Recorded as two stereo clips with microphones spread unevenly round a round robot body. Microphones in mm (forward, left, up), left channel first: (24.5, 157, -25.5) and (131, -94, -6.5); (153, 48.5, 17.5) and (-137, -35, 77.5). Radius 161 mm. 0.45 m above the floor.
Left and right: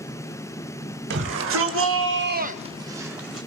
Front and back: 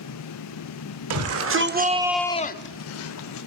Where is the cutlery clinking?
No cutlery clinking in this recording.